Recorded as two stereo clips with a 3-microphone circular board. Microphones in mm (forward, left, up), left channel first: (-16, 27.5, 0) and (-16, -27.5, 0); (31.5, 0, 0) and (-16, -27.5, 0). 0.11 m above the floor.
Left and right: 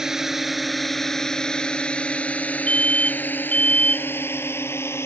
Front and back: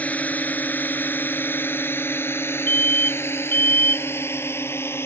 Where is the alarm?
35° left.